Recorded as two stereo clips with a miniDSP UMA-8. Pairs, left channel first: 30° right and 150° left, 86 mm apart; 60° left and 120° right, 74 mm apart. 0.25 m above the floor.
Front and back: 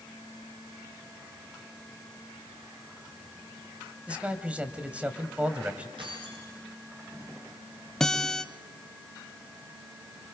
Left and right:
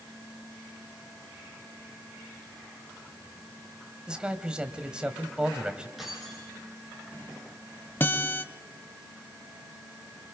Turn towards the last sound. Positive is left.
turn(degrees=45)